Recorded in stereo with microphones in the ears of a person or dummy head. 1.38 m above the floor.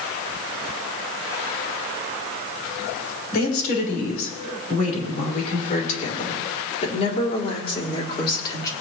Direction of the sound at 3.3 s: 55° left (ahead or behind).